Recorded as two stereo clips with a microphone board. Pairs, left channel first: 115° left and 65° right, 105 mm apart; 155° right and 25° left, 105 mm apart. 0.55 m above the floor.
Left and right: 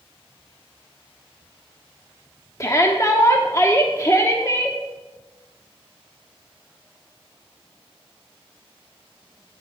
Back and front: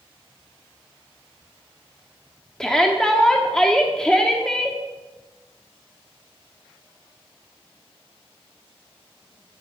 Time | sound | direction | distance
2.6 | a shout | 125° left | 0.9 m